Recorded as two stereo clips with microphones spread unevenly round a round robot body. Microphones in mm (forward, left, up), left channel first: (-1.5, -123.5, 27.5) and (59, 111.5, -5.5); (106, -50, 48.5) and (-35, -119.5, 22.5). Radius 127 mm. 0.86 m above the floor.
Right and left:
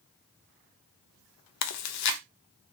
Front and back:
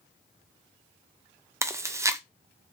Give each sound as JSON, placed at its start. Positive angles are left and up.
{"t": 1.6, "sound": "chewing", "azimuth_deg": -85, "distance_m": 0.6}